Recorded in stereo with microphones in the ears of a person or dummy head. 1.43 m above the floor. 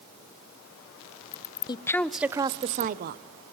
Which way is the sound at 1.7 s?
25° left (ahead or behind).